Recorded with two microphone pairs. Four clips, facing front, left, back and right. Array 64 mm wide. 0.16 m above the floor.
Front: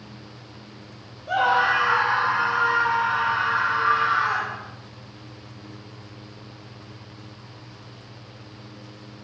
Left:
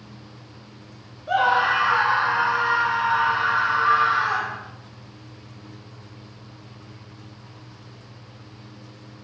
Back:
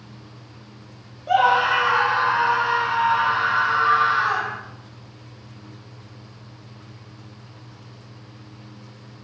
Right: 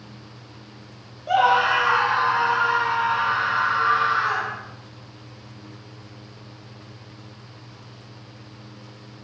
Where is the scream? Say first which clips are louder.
Right 1 dB, back 3 dB; 130° right, 3.5 m; by 4.6 s 165° right, 5.5 m.